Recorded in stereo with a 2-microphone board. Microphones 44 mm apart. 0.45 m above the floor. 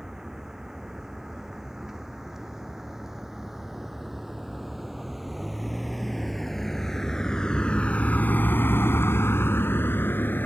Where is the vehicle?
15° right (ahead or behind); by 10.5 s 55° left (ahead or behind).